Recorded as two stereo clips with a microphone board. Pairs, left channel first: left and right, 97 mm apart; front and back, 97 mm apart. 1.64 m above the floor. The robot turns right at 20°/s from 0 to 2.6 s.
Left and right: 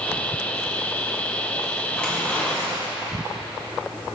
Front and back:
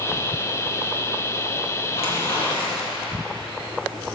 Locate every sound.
1.9 s tearing paper: 10° left, 1.8 m; by 3.2 s 25° left, 1.8 m